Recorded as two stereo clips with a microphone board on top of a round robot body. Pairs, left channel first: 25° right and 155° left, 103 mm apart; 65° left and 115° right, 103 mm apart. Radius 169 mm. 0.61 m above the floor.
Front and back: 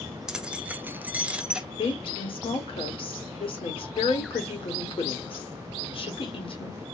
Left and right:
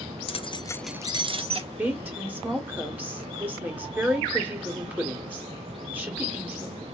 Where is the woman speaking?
40° right, 1.9 m.